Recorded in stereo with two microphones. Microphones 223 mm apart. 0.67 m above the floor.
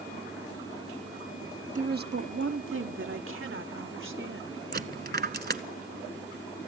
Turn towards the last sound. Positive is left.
turn(degrees=-45)  # may be behind; listen again after turning